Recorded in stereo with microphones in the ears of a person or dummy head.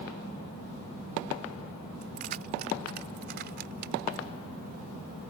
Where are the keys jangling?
45° right (ahead or behind); by 4.3 s 60° right (ahead or behind).